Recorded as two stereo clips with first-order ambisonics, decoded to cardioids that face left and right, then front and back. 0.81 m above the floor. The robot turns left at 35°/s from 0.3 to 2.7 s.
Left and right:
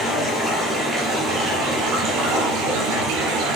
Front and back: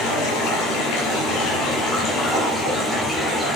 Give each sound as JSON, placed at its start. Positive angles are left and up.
{"t": 0.0, "sound": "running water", "azimuth_deg": 15, "distance_m": 3.5}